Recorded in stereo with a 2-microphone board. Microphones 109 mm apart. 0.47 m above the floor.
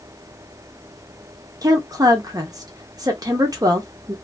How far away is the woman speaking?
About 0.8 m.